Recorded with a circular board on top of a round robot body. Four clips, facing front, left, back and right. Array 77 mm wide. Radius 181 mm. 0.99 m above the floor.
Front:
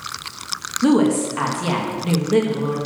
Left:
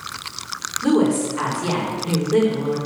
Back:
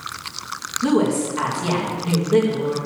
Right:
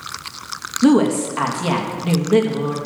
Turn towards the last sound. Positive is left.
turn(degrees=-65)